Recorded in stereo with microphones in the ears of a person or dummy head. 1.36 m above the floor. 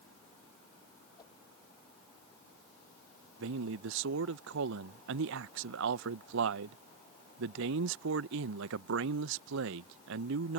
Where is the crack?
No crack in this recording.